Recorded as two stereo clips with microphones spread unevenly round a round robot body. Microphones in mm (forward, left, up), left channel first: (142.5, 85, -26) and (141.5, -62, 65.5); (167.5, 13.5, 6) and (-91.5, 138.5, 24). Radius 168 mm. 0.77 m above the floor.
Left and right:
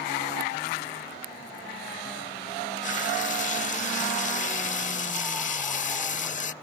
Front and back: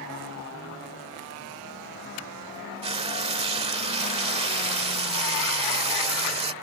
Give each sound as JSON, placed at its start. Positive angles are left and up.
{"t": 2.8, "sound": "frying", "azimuth_deg": 85}